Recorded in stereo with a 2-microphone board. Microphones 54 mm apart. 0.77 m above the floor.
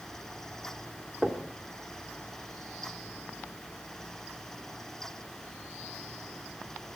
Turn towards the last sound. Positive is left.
turn(degrees=-15)  # may be behind; listen again after turning